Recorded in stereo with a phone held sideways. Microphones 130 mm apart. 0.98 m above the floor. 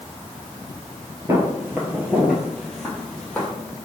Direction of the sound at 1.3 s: 25° right (ahead or behind).